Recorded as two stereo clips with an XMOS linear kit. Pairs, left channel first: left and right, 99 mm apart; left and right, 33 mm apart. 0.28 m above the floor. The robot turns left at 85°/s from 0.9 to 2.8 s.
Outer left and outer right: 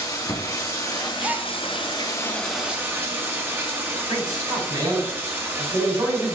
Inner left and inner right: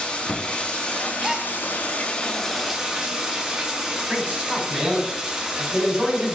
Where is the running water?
140° left, 1.9 m; by 6.4 s 25° right, 1.9 m.